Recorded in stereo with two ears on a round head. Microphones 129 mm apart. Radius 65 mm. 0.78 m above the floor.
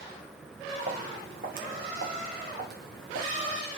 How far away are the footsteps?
About 3 m.